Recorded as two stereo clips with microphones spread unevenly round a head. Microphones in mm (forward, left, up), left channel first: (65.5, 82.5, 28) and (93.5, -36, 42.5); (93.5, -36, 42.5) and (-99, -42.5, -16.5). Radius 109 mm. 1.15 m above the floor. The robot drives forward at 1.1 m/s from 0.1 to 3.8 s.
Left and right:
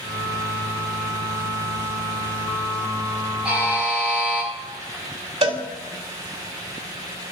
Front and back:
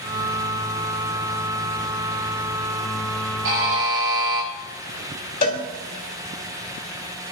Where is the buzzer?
160° right, 6 m.